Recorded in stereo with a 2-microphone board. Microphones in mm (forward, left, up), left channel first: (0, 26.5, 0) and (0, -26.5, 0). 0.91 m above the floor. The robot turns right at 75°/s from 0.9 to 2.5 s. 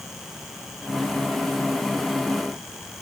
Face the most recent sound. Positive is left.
No sound to turn to.